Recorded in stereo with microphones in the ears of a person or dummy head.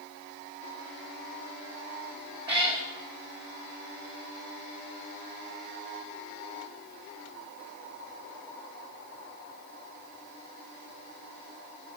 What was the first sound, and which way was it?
A cat meowing, 30° right (ahead or behind).